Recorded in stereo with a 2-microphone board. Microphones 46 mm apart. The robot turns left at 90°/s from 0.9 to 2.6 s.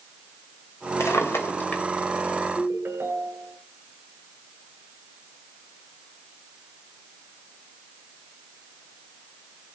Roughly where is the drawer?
Left.